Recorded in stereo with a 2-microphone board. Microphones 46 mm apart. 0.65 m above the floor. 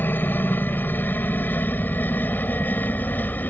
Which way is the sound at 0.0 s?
45° left (ahead or behind).